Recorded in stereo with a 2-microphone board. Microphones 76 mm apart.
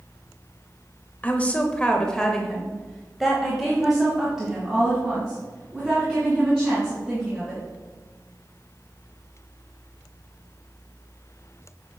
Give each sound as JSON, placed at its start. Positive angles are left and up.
{"t": 1.2, "sound": "a woman speaking", "side_deg": 20, "distance_m": 0.9}